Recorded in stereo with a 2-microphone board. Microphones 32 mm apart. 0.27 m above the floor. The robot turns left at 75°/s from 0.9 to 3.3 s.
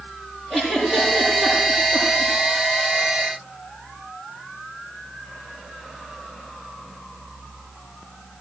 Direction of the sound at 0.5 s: 5° right (ahead or behind).